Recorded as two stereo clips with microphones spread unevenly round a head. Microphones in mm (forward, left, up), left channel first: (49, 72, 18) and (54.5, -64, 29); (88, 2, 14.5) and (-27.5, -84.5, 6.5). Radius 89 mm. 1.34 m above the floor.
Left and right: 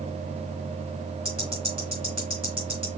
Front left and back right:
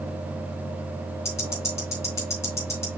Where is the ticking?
30° right, 3 m.